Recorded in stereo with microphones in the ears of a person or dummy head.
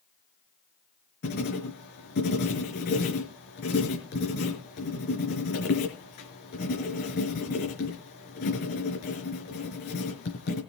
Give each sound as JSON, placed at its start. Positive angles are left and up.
{"t": 1.2, "sound": "writing", "side_deg": 50, "distance_m": 4.5}